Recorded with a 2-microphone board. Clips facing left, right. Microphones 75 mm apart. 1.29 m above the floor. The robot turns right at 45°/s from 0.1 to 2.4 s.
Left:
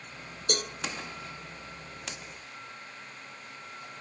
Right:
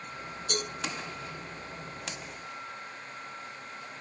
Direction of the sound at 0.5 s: 75° left (ahead or behind).